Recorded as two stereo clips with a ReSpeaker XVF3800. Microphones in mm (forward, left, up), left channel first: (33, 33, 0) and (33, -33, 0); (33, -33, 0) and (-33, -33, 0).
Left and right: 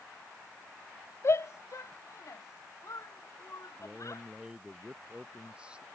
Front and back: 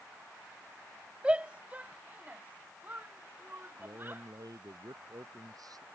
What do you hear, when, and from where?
1.2 s a shout: 110° left; by 4.2 s 125° left
3.8 s a man speaking: 165° right